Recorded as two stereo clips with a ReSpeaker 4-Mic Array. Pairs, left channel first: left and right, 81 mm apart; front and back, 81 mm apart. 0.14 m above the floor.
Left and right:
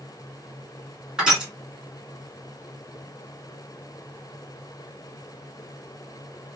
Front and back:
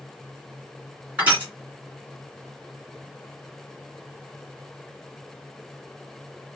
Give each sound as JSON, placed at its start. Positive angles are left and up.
{"t": 1.2, "sound": "crushing", "azimuth_deg": -150, "distance_m": 1.7}